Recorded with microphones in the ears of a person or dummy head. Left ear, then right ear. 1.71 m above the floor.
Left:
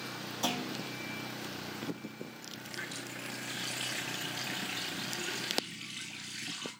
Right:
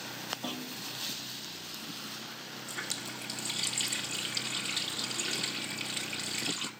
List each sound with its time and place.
0.4 s a clunk: 70° left (ahead or behind), 7 m
2.7 s a running tap: 45° right (ahead or behind), 2.5 m